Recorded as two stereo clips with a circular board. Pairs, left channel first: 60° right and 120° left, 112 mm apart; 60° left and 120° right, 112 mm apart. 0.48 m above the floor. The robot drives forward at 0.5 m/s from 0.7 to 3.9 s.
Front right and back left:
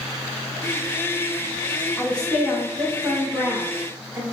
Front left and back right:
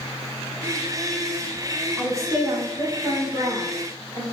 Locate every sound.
2.0 s a woman speaking: 120° right, 0.8 m; by 4.2 s 165° right, 1.4 m